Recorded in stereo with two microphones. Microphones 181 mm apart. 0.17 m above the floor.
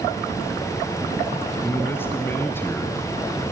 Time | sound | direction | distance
1.6 | a man speaking | 10° left (ahead or behind) | 1.9 m